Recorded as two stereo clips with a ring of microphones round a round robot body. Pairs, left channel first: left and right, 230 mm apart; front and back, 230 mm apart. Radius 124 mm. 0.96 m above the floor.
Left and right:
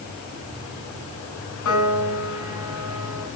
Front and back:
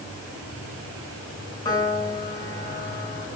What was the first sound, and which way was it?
A piano, 75° left.